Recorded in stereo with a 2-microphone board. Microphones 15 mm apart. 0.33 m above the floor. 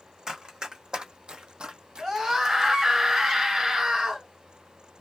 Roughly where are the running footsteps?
Right.